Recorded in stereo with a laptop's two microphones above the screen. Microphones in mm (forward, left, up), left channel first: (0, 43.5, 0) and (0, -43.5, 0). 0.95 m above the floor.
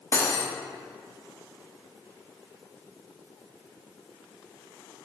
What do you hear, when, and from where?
0.1 s cutlery clinking: 30° left (ahead or behind), 0.8 m